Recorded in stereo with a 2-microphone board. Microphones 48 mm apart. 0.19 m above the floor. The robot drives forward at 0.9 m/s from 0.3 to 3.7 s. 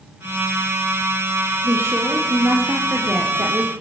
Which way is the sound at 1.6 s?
65° right (ahead or behind).